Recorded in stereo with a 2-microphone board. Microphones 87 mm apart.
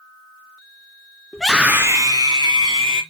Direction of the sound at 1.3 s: 5° left (ahead or behind).